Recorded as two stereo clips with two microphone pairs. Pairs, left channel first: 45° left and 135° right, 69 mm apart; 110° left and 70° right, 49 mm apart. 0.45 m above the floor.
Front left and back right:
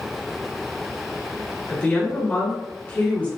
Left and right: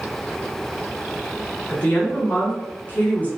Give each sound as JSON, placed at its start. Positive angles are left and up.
{"t": 1.7, "sound": "a woman speaking", "azimuth_deg": 90, "distance_m": 1.3}